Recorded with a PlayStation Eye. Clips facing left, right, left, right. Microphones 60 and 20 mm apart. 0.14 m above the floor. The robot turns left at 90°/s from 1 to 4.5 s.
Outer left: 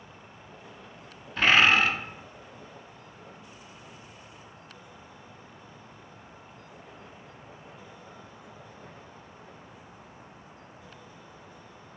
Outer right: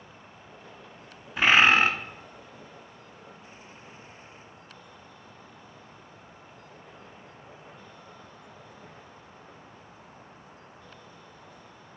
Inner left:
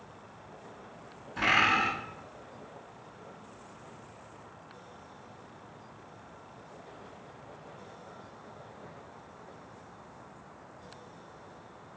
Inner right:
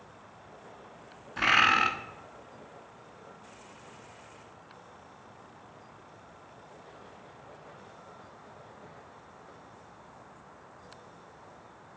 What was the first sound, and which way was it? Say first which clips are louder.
A bird: outer right 1 dB, inner right 2 dB; 15° right.